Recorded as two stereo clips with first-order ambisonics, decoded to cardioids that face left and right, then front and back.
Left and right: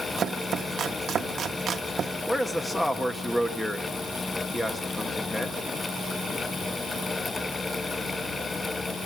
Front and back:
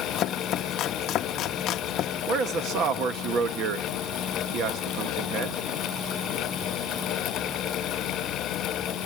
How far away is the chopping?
About 0.8 m.